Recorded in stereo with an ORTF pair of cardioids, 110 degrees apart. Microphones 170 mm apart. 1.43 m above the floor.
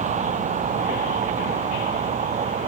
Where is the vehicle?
45° right.